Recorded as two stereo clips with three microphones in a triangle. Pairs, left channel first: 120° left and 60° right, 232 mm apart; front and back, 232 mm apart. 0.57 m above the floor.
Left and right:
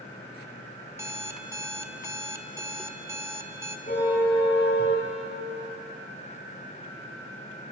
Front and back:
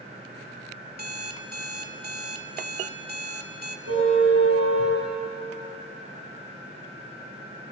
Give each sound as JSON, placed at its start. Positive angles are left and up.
{"t": 0.9, "sound": "an alarm clock", "azimuth_deg": -135, "distance_m": 1.1}
{"t": 3.9, "sound": "a car horn", "azimuth_deg": 170, "distance_m": 6.5}